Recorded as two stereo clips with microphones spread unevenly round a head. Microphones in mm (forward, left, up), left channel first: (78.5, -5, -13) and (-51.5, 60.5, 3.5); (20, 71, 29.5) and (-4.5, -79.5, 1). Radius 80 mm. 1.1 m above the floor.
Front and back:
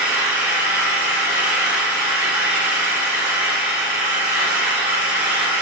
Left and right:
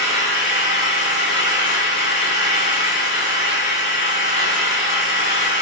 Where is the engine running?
75° left, 1.7 m.